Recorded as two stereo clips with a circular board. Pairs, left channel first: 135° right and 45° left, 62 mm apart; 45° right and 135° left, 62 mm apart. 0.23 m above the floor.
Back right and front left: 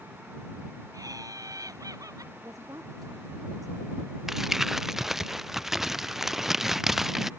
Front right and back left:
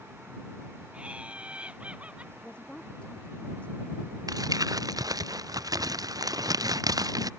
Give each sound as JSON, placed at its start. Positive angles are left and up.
{"t": 0.9, "sound": "laughter", "azimuth_deg": 65}
{"t": 2.4, "sound": "a woman speaking", "azimuth_deg": 25}
{"t": 4.3, "sound": "crumpling", "azimuth_deg": 130}